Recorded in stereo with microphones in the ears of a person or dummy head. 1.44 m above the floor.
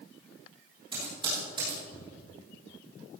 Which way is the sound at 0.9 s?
30° right (ahead or behind).